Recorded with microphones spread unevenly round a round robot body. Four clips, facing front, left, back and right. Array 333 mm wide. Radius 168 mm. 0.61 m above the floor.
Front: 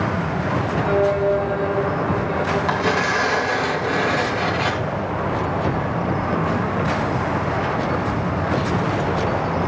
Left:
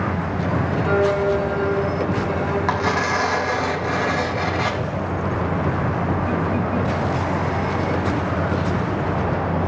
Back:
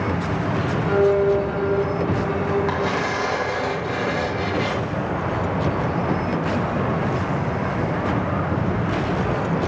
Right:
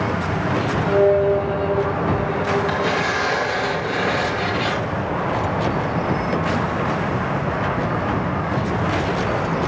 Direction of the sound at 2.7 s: 60° left.